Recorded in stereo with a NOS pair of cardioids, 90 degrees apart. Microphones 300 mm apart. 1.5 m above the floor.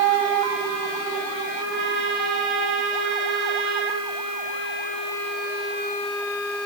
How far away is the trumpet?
About 2.5 m.